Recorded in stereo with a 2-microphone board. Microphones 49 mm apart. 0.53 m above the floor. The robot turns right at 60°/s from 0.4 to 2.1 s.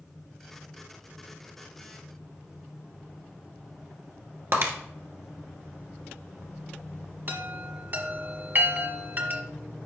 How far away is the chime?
About 1.6 m.